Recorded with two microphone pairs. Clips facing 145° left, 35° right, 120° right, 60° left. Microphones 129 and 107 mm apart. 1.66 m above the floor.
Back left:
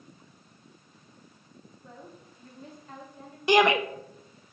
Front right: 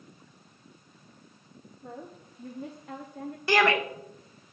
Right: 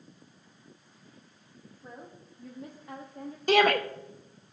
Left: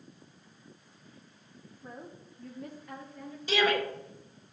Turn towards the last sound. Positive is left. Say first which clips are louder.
# back left 3 dB, right 5 dB
turn(degrees=-145)